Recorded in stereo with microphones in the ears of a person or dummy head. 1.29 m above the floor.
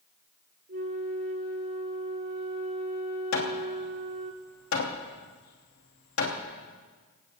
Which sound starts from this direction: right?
A flute, at 0.7 s.